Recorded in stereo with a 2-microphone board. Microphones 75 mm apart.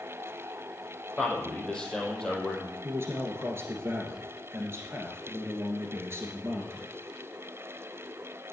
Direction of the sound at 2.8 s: 30° right (ahead or behind).